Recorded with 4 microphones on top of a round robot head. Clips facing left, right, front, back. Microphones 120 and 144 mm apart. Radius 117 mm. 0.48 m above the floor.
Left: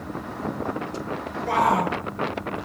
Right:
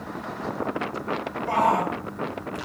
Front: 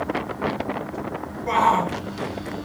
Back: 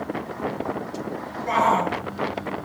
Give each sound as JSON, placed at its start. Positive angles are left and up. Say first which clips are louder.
{"t": 1.5, "sound": "a shout", "louder": "left 1 dB, front 1 dB", "azimuth_deg": 55, "distance_m": 6.5}